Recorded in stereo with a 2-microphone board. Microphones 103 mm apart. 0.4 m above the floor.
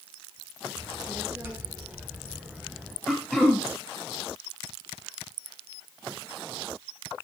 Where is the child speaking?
25° right (ahead or behind), 4 m; by 3.0 s centre (ahead or behind), 2.5 m.